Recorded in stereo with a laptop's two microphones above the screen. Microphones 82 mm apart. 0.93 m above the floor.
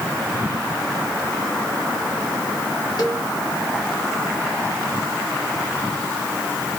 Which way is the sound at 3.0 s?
60° left (ahead or behind).